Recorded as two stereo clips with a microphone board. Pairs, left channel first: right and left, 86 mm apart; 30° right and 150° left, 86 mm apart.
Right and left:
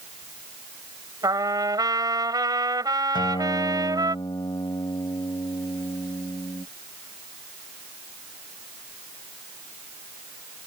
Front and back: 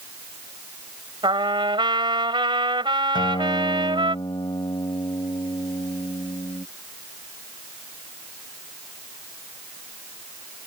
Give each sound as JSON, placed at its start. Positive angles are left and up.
{"t": 1.2, "sound": "a trumpet", "azimuth_deg": 130}
{"t": 3.1, "sound": "a guitar", "azimuth_deg": -60}